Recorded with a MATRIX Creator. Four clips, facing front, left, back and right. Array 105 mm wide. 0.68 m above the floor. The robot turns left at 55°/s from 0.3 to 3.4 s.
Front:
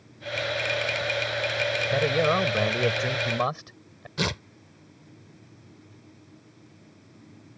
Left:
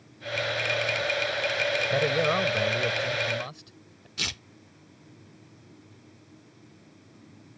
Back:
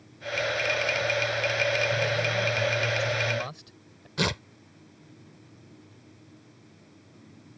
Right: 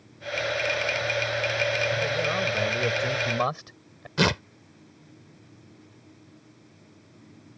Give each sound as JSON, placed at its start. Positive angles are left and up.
{"t": 1.9, "sound": "a man speaking", "azimuth_deg": 40}
{"t": 4.2, "sound": "tearing paper", "azimuth_deg": -95}